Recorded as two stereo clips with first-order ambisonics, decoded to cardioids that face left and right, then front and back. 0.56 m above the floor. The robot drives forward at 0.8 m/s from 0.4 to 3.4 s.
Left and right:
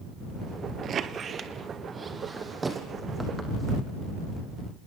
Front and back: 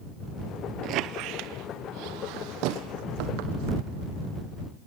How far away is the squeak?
About 0.9 m.